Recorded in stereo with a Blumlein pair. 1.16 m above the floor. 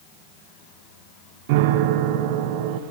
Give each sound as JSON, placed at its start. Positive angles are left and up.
{"t": 1.5, "sound": "a piano", "azimuth_deg": -50, "distance_m": 1.1}